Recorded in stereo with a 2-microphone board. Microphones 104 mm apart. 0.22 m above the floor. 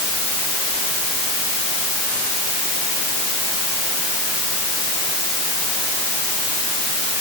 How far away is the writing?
I don't hear writing.